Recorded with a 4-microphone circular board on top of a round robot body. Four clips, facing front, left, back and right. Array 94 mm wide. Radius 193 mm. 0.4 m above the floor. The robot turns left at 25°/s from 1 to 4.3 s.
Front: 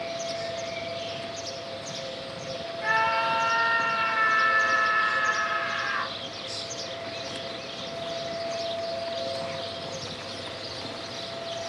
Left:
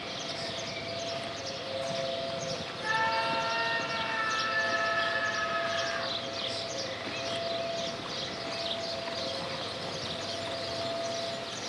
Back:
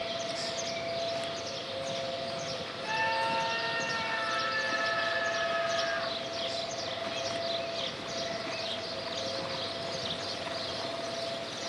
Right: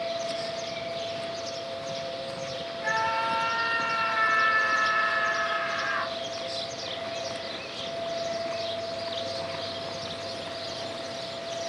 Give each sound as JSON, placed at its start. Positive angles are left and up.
{"t": 2.8, "sound": "a scream", "azimuth_deg": -5, "distance_m": 5.0}